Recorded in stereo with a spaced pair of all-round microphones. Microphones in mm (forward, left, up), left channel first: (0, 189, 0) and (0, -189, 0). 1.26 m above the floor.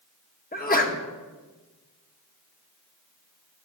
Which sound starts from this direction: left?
A sneeze, at 0.5 s.